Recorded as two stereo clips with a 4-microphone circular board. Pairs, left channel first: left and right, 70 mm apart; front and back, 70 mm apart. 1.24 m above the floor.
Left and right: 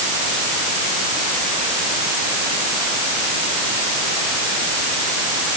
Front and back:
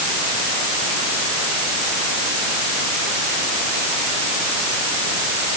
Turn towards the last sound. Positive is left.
No sound to turn to.